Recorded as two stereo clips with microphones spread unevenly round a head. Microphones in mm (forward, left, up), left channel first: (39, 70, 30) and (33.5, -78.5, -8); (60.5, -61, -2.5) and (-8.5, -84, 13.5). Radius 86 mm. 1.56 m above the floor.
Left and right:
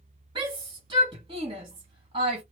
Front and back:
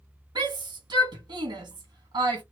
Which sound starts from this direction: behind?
A shout, at 0.3 s.